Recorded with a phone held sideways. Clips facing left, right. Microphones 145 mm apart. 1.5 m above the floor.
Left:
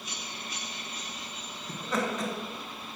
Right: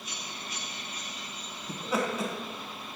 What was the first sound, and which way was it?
Laughter, 10° right (ahead or behind).